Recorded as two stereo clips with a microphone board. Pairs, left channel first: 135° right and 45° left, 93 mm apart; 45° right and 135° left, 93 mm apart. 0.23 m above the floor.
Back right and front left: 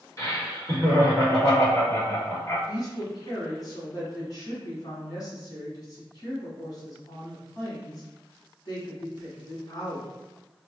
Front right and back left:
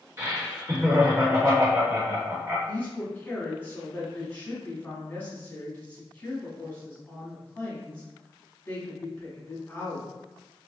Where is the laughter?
175° right, 1.6 m.